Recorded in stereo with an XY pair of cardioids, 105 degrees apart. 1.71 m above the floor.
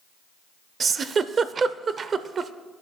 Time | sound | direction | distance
0.8 | a giggle | 45° right | 0.7 m